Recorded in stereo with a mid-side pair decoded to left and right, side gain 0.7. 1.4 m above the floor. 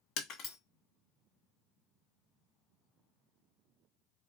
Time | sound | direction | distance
0.2 | breaking glass | 55° left | 1.4 m